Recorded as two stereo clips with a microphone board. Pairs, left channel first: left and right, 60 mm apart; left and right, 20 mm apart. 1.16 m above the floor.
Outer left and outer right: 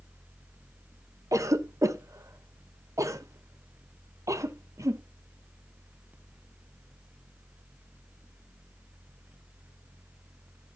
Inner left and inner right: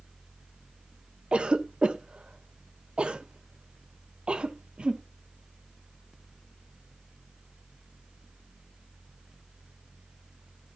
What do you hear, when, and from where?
1.3 s a cough: 65° right (ahead or behind), 1.1 m